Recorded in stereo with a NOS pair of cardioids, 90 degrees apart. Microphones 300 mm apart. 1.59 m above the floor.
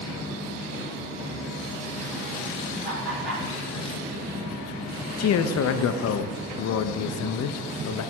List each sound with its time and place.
2.8 s laughter: 35° right, 2.5 m
5.2 s a man speaking: 55° left, 0.5 m